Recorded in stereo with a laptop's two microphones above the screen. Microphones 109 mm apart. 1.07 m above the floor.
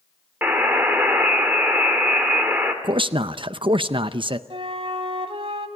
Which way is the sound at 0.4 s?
15° right (ahead or behind).